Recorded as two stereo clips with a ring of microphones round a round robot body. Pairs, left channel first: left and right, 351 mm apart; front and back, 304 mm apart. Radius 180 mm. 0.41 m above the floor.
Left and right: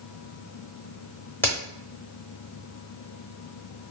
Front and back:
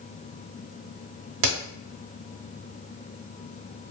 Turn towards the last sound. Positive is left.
turn(degrees=175)